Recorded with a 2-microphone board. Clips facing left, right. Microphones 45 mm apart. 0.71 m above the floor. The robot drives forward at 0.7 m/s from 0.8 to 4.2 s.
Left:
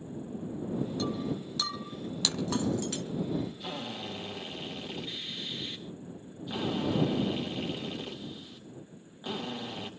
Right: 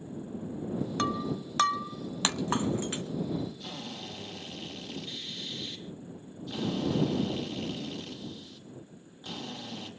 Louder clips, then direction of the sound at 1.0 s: Right 2 dB; 65° right (ahead or behind).